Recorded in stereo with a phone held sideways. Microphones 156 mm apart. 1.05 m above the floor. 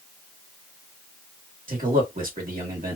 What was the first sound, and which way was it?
A man speaking, 60° right (ahead or behind).